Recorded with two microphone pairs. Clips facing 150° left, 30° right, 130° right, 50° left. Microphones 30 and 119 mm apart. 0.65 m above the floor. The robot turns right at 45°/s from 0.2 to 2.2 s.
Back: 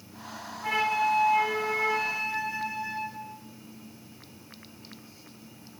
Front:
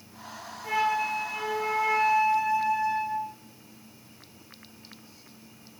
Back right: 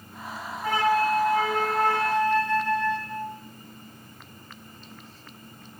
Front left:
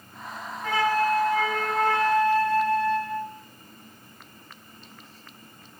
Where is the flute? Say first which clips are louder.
Back 1 dB, back right 1 dB; 160° left, 5 m; by 3.3 s 130° right, 5 m.